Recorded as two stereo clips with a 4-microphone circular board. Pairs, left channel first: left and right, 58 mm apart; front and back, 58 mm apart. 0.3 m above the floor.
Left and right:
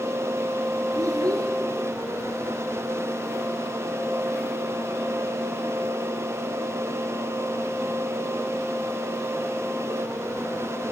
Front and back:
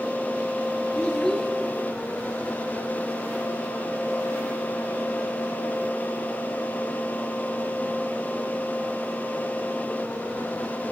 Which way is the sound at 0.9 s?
75° right.